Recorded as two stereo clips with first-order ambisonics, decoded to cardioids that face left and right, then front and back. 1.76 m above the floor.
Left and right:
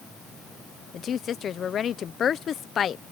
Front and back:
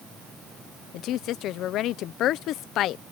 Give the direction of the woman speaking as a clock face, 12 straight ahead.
11 o'clock.